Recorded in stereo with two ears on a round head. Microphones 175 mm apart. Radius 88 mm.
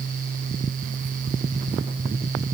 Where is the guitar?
I don't hear a guitar.